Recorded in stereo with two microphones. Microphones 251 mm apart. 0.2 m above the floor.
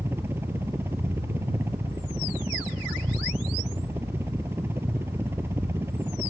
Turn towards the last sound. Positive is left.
turn(degrees=-10)  # may be behind; listen again after turning